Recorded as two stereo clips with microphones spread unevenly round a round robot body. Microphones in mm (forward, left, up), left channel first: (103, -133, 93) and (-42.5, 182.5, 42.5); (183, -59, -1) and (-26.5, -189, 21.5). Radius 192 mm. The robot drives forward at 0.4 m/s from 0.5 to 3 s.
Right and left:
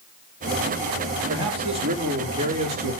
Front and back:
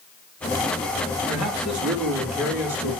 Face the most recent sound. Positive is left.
turn(degrees=-175)